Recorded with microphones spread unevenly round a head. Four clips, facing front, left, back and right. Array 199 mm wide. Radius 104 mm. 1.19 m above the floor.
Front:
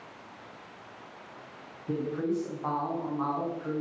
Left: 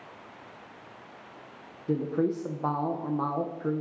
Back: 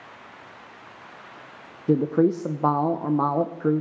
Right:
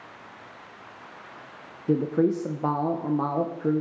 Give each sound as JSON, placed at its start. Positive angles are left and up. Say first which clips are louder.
{"t": 1.9, "sound": "a woman speaking", "louder": "right 5 dB, back 10 dB", "azimuth_deg": -155, "distance_m": 0.5}